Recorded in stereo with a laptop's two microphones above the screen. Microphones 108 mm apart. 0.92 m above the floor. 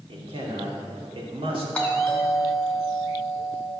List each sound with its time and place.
0.1 s a man speaking: 55° right (ahead or behind), 2.5 m
1.8 s a doorbell: 15° left (ahead or behind), 2 m